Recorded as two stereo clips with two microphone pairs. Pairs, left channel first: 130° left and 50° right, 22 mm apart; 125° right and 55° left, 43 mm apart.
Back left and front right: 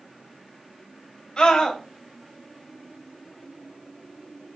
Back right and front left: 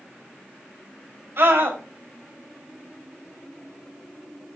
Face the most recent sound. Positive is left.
turn(degrees=85)